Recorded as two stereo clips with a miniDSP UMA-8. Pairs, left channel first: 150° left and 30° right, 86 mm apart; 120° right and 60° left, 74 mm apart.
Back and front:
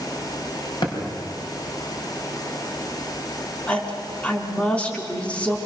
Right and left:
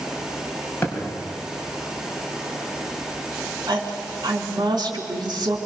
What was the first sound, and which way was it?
A thud, straight behind.